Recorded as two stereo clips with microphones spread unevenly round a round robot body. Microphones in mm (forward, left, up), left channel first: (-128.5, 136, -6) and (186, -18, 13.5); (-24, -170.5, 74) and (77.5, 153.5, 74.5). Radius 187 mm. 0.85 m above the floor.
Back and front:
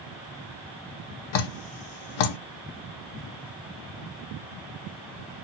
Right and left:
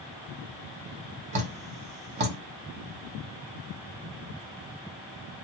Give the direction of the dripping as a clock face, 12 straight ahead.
7 o'clock.